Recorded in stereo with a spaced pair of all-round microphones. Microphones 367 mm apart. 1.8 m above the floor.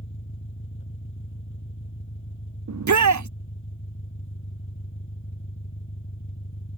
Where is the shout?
50° right (ahead or behind).